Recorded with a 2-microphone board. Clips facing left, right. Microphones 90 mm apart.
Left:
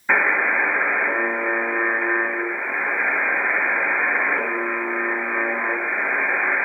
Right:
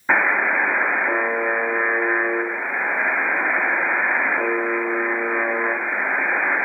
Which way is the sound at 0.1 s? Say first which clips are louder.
Right 1 dB; 20° right (ahead or behind).